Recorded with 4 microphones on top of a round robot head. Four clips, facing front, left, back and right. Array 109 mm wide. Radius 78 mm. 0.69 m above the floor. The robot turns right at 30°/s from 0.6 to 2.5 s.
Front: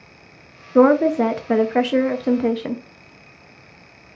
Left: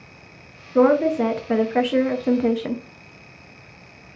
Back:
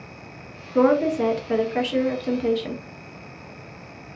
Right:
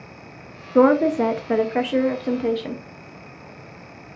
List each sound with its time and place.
0.8 s a woman speaking: 30° right, 0.6 m; by 2.8 s 20° left, 0.6 m